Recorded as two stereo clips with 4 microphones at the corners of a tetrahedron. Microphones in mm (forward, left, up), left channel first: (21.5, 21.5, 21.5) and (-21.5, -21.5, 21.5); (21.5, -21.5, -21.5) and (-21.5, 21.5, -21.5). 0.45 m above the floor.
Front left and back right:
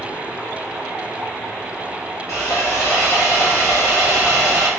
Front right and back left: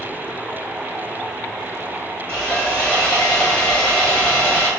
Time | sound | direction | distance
2.3 | sawing | 25° left | 1.5 m